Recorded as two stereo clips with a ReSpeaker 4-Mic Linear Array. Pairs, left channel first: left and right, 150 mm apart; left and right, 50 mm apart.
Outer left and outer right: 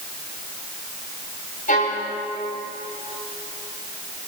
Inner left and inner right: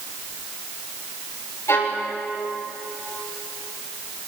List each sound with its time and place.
1.7 s a violin: 65° left (ahead or behind), 5.5 m